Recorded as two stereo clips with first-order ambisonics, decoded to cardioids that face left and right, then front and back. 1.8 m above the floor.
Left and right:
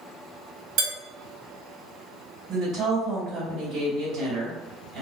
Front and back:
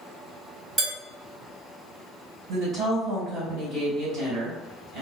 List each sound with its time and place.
0.8 s dishes clattering: 110° right, 1.6 m
2.5 s a woman speaking: 135° right, 1.6 m